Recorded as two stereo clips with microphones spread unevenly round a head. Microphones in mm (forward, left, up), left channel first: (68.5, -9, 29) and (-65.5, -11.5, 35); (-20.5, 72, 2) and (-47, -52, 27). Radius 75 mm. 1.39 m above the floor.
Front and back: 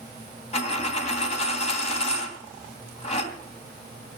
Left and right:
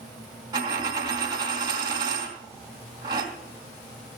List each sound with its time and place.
0.5 s a dropped coin: 45° right, 2.5 m